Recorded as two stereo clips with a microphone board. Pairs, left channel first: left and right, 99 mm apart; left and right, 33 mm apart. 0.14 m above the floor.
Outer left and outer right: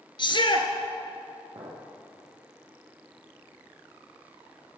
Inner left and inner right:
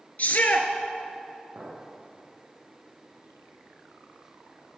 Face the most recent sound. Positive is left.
turn(degrees=-60)  # may be behind; listen again after turning